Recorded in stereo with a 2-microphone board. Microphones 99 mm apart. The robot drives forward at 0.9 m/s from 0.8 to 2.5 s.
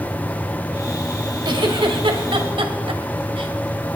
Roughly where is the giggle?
Right.